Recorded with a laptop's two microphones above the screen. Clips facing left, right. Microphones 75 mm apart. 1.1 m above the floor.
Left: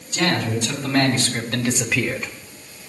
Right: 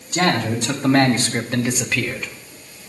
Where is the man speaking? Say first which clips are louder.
Right 2 dB; 60° right (ahead or behind), 2.5 m; by 2.3 s 40° left (ahead or behind), 1.0 m.